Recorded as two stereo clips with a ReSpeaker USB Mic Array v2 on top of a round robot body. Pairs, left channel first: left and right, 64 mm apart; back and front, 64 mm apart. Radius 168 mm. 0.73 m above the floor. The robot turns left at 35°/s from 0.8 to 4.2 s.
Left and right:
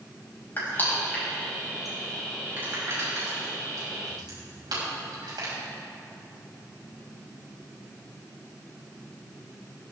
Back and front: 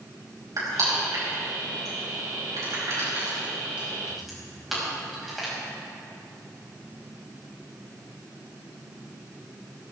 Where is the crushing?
30° left, 6 m; by 5.5 s 85° right, 6 m.